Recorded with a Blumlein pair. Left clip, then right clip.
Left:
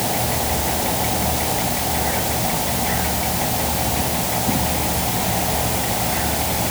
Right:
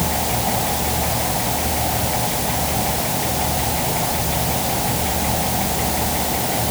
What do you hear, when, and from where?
Only background noise.